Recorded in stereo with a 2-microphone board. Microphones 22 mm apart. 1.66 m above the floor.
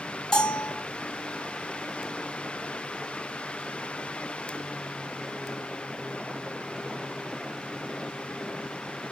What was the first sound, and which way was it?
A bell, 25° left (ahead or behind).